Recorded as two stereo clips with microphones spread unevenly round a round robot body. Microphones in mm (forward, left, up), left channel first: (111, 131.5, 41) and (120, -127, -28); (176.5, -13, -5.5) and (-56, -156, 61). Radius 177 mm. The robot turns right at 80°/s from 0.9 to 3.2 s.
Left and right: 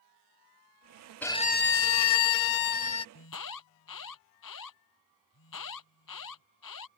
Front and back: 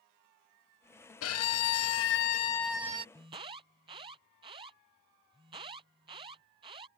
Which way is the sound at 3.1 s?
130° left.